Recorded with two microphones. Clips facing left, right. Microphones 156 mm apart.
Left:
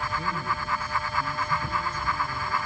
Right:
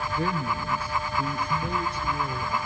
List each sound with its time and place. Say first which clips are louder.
0.1 s a man speaking: right 3 dB; 65° right (ahead or behind), 4.5 m; by 2.6 s 75° right (ahead or behind), 5 m